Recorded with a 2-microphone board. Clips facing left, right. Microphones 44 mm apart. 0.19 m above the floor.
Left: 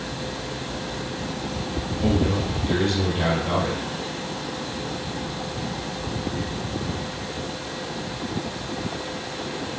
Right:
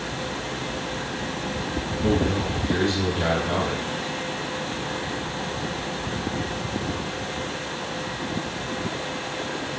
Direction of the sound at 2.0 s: 30° left (ahead or behind).